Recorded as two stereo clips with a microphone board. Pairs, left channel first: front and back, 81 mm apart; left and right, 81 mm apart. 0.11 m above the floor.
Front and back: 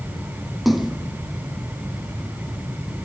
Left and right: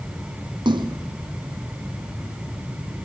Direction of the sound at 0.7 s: 90° right.